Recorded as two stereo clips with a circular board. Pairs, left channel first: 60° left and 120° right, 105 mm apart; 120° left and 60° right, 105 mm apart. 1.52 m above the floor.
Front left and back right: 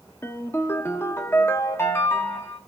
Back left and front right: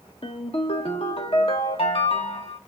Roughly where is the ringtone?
Behind left.